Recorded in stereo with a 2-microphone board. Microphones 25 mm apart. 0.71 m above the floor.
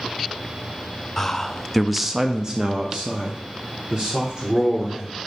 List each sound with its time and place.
1.2 s a man speaking: 20° left (ahead or behind), 0.7 m; by 5.2 s 35° right (ahead or behind), 1.9 m